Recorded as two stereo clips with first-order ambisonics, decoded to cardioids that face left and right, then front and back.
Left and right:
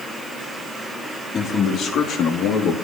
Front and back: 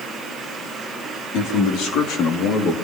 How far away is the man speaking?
About 3 m.